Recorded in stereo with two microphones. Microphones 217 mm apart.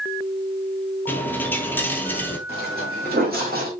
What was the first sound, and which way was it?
A dropped coin, 10° left (ahead or behind).